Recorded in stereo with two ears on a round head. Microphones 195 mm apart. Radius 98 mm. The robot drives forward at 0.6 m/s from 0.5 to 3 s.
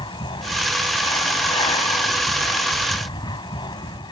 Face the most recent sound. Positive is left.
turn(degrees=20)  # may be behind; listen again after turning